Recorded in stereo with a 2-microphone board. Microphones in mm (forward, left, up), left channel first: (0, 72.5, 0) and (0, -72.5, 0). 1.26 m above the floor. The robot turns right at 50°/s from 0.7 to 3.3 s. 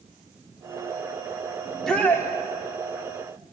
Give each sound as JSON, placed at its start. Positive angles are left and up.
{"t": 1.6, "sound": "a shout", "azimuth_deg": -5, "distance_m": 3.0}